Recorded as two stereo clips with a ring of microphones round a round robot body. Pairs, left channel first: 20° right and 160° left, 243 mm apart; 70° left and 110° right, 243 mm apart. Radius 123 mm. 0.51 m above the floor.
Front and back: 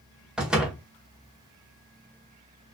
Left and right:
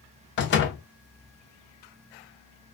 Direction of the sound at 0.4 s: 75° left.